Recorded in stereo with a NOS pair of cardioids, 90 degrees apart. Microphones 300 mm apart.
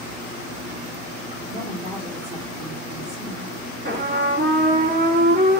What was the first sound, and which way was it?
A woman speaking, 15° right.